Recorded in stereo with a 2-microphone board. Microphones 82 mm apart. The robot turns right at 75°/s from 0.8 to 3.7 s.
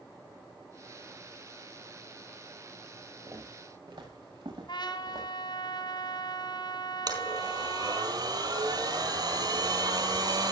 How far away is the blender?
About 4.5 m.